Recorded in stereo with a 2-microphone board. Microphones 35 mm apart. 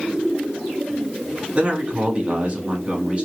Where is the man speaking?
30° right (ahead or behind), 2.5 m.